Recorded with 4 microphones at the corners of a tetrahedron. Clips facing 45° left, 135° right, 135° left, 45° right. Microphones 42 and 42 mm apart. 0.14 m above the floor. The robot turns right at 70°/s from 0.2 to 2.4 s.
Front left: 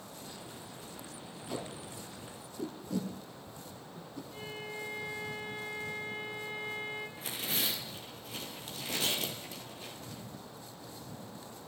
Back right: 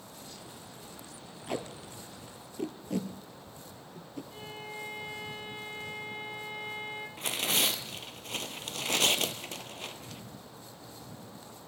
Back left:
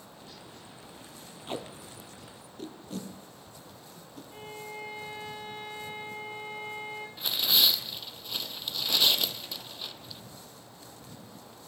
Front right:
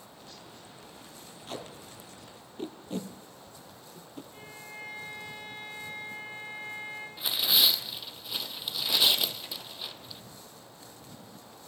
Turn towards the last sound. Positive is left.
turn(degrees=-130)